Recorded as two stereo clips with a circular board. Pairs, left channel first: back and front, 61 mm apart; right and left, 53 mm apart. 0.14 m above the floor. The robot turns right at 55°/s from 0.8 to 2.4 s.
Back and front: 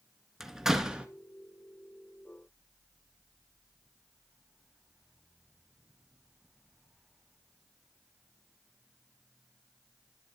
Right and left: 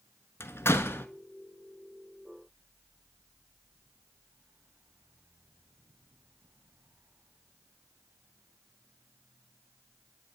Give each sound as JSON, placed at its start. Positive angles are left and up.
{"t": 0.4, "sound": "a door slam", "azimuth_deg": -80, "distance_m": 1.2}